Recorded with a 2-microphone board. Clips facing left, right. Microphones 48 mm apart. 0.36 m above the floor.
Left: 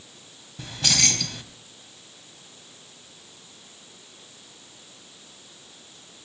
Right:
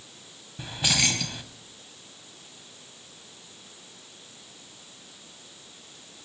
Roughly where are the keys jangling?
Centre.